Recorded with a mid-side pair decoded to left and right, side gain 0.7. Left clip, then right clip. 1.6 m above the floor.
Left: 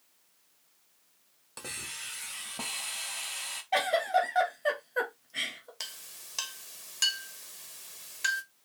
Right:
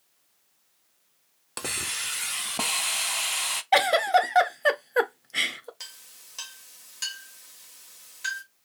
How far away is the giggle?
About 0.9 m.